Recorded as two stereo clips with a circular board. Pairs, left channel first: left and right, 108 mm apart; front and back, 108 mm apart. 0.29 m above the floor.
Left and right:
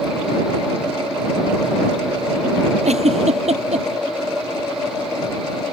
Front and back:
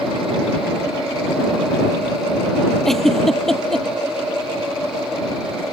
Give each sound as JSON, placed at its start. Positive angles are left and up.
{"t": 2.9, "sound": "a giggle", "azimuth_deg": -85}